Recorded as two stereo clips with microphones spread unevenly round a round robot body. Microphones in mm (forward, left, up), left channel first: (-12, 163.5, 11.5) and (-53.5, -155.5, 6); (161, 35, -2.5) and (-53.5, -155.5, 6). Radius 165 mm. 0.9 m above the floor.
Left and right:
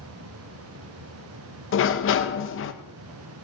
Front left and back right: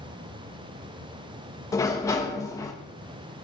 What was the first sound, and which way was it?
A sliding door, 115° left.